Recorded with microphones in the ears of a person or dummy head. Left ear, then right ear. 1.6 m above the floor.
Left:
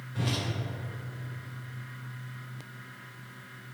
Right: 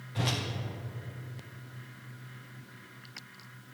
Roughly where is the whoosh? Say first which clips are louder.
Right 1 dB; centre.